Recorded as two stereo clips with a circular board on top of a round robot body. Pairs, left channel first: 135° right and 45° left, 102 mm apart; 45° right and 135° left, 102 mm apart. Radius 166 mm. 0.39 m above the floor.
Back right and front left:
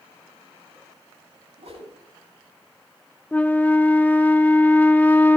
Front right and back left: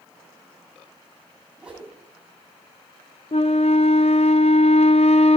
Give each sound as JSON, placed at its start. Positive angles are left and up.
{"t": 1.6, "sound": "a whoosh", "azimuth_deg": 55, "distance_m": 8.0}
{"t": 3.3, "sound": "a flute", "azimuth_deg": -60, "distance_m": 0.6}